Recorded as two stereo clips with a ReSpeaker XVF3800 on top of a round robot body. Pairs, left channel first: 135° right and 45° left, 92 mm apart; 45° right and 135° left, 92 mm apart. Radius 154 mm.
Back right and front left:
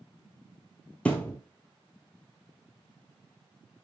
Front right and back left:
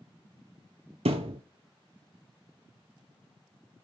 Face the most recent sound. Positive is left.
turn(degrees=145)